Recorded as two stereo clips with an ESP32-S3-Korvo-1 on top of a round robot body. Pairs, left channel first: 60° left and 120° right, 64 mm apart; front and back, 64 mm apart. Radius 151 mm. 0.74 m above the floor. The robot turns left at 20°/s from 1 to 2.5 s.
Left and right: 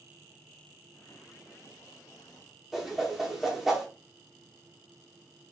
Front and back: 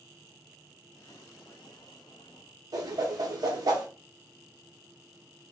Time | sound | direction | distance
2.7 | a whoosh | 150° left | 0.9 m